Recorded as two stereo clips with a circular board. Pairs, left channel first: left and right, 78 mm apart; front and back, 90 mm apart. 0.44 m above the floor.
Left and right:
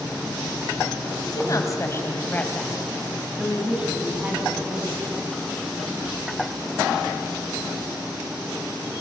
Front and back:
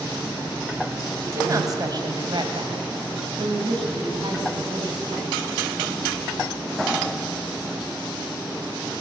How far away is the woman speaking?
About 3 m.